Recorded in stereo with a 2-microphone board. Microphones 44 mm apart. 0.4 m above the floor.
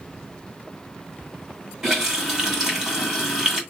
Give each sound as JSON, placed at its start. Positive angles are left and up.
{"t": 1.8, "sound": "a running tap", "side_deg": -10, "distance_m": 2.5}